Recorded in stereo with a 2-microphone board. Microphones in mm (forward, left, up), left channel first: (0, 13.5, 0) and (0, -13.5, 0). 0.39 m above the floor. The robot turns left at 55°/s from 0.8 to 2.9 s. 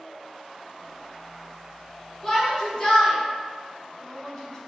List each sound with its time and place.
2.2 s a shout: 15° left (ahead or behind), 1.5 m; by 4.6 s 30° left (ahead or behind), 1.5 m